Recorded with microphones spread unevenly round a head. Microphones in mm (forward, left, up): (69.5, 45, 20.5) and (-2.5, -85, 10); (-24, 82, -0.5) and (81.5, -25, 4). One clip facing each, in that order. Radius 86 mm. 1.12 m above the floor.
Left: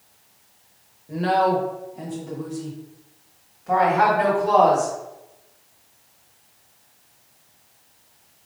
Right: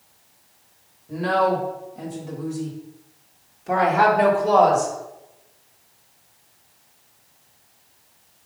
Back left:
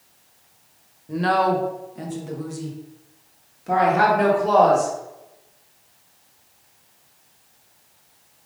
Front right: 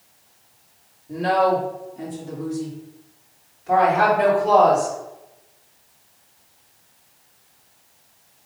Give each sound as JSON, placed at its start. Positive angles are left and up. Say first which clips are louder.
{"t": 1.1, "sound": "a woman speaking", "louder": "left 1 dB, front right 1 dB", "azimuth_deg": 135, "distance_m": 1.8}